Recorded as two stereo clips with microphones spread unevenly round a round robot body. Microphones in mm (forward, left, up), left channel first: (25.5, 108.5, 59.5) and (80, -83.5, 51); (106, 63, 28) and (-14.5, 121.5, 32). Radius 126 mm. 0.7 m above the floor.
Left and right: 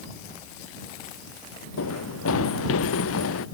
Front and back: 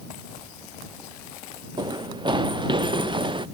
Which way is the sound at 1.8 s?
100° left.